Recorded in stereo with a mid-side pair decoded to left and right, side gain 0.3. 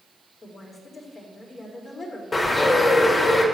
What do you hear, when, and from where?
0.4 s a woman speaking: 55° left, 4 m
2.3 s a bird: 45° left, 3 m